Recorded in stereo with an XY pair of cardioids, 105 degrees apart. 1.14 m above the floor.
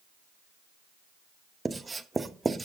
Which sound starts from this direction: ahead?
Writing, at 1.6 s.